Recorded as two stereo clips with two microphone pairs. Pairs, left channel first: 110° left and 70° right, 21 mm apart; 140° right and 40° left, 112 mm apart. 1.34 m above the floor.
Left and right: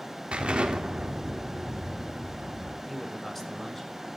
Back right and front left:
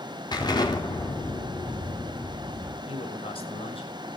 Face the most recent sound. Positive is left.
turn(degrees=-165)